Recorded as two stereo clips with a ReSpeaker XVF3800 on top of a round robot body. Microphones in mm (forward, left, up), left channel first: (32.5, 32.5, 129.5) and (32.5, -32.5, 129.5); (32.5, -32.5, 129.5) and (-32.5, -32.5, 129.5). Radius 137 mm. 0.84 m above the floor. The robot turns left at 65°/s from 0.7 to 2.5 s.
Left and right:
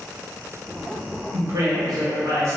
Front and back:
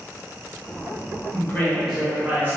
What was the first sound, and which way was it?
A woman speaking, 50° right.